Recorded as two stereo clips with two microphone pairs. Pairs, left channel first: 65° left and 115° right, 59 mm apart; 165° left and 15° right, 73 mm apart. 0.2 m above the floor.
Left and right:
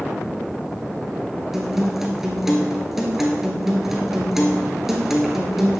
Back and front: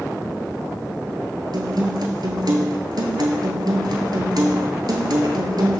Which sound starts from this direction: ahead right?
A guitar, at 1.5 s.